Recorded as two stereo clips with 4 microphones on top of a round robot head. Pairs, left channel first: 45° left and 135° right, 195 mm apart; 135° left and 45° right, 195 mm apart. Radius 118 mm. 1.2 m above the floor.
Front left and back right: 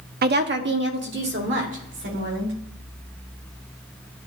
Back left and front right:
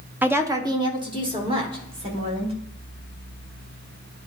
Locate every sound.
0.2 s a woman speaking: 125° right, 0.8 m; by 2.6 s 110° right, 3 m